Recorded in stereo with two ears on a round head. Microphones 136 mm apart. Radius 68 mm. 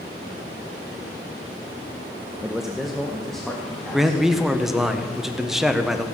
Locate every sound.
2.4 s a man speaking: 5° right (ahead or behind), 0.6 m; by 4.2 s 5° left (ahead or behind), 2 m
3.9 s a man speaking: centre (ahead or behind), 1.1 m